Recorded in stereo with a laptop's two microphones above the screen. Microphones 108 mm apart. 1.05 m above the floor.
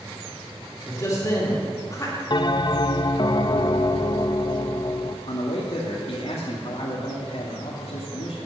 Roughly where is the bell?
Left.